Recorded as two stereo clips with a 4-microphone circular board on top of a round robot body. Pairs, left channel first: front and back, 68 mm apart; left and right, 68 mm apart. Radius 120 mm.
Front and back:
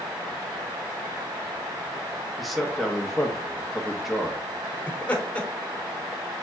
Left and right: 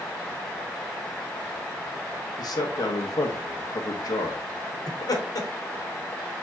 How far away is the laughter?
About 1.9 m.